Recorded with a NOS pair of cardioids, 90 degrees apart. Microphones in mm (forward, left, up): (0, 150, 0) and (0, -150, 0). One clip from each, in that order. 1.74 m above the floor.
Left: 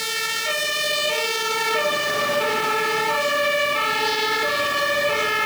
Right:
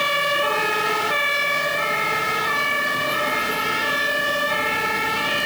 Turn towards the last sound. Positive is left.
No sound to turn to.